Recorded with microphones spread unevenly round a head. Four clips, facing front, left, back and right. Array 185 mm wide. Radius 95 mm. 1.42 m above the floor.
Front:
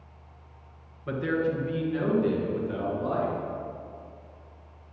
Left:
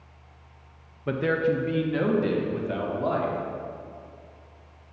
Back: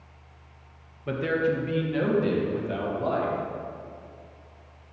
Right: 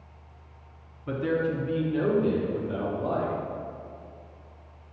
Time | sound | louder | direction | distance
1.1 | a man speaking | left 3 dB, back 2 dB | 100° left | 1.5 m